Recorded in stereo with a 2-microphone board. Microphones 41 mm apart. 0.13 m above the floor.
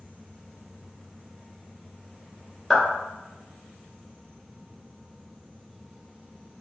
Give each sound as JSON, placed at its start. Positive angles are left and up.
{"t": 2.7, "sound": "a clap", "side_deg": -5, "distance_m": 1.8}